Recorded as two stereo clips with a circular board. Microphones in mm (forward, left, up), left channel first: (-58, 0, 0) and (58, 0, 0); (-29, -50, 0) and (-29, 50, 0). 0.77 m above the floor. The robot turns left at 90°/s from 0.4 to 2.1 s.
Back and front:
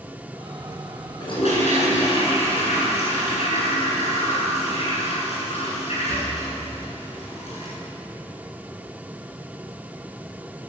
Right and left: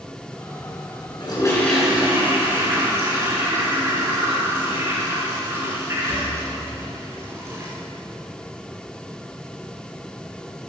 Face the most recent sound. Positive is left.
turn(degrees=155)